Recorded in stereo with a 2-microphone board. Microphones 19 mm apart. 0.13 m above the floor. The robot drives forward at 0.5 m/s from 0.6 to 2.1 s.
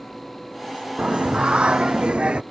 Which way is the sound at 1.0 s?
80° right.